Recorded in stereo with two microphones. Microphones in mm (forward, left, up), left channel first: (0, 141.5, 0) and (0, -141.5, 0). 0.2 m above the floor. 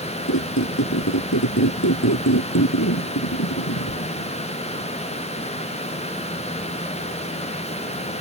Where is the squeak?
75° left (ahead or behind).